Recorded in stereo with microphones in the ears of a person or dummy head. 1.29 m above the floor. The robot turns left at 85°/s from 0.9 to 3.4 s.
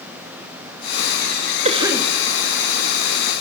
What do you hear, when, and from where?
1.6 s a cough: 145° right, 2.5 m; by 2.1 s 175° left, 2.5 m